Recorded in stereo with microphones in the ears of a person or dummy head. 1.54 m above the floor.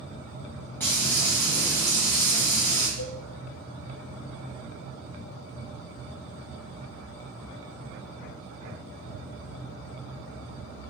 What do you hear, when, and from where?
0.8 s frying: 10° left (ahead or behind), 1.3 m
3.0 s a cowbell: 85° left, 0.7 m